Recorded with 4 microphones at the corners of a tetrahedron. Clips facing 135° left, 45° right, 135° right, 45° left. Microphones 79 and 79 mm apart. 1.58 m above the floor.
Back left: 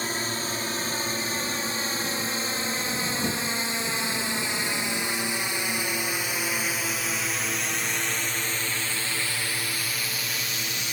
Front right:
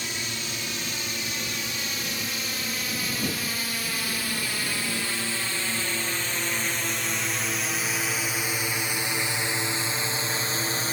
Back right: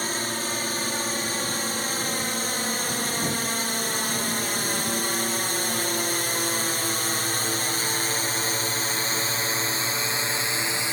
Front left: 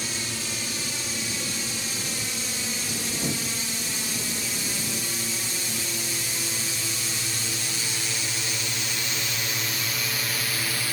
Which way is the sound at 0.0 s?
175° right.